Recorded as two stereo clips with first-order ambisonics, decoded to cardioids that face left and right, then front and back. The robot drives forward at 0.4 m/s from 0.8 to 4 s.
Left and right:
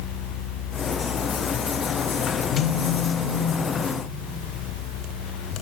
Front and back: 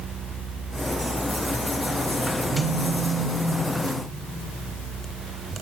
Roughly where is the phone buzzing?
Behind left.